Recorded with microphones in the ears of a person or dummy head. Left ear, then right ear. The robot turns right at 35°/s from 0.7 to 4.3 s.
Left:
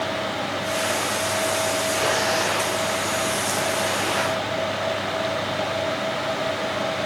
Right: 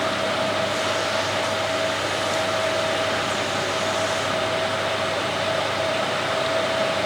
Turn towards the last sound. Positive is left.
No sound to turn to.